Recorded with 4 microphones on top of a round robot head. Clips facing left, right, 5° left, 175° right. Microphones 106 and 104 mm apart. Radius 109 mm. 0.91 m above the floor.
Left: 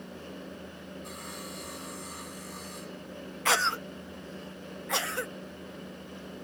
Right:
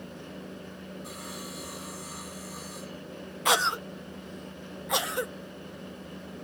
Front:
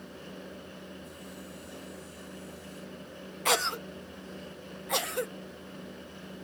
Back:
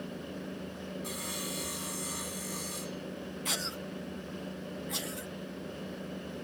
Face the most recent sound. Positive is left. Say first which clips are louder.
# right 2 dB, front 13 dB
turn(degrees=-20)